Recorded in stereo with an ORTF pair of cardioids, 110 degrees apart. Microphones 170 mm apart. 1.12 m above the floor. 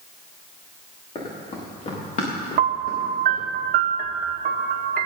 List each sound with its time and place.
1.1 s running footsteps: 40° left, 6.5 m; by 3.5 s 55° left, 9 m
2.6 s a piano: 60° right, 1.1 m